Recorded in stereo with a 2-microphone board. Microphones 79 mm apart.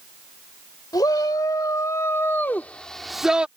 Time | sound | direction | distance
0.9 | a shout | 55° left (ahead or behind) | ?